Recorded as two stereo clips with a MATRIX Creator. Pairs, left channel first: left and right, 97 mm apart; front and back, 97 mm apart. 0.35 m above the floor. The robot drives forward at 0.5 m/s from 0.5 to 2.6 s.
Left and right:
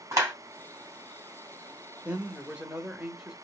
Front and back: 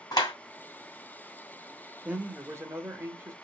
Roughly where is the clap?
Ahead right.